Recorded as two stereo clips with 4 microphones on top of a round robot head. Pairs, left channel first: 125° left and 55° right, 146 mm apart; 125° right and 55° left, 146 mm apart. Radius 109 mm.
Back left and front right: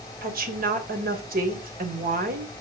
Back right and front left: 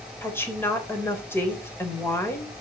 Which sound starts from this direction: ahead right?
A woman speaking, at 0.2 s.